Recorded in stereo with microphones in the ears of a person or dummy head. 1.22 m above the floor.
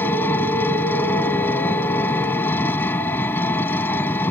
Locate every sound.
0.0 s an engine running: 15° left (ahead or behind)